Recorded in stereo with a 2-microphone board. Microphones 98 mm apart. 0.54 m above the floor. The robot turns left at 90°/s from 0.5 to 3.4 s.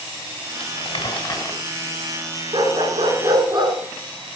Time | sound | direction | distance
0.6 | crumpling | 110° left | 2.5 m
2.5 | a dog barking | 50° right | 3 m